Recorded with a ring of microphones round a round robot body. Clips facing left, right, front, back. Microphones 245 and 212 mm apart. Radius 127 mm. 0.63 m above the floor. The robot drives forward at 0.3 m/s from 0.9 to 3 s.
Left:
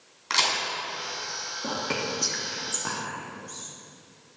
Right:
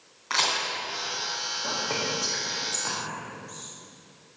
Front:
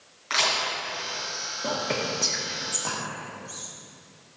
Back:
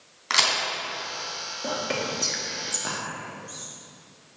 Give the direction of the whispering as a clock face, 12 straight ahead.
9 o'clock.